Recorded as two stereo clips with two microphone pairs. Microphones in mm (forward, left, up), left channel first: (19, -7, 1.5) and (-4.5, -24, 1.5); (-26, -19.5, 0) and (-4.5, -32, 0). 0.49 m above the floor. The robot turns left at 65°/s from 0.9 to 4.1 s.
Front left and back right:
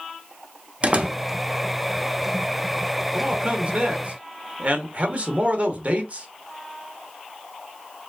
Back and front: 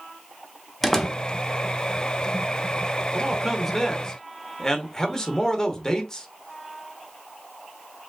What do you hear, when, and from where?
0.8 s a door slam: 135° right, 0.8 m; by 1.2 s 155° right, 0.8 m
3.1 s a man speaking: 95° right, 1.1 m; by 6.3 s 160° right, 1.1 m